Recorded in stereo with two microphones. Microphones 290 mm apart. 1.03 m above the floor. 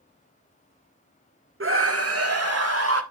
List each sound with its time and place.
1.6 s a scream: 45° right (ahead or behind), 0.9 m; by 3.0 s 55° right (ahead or behind), 1.9 m